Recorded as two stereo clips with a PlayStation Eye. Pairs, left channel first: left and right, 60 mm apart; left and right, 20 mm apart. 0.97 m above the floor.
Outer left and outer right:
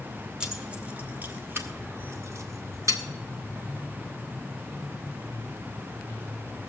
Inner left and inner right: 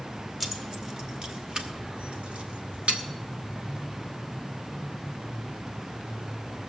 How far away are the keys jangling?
About 1.7 m.